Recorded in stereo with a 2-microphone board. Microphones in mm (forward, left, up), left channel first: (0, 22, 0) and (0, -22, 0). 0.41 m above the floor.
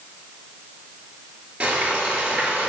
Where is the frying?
25° right (ahead or behind), 5 m.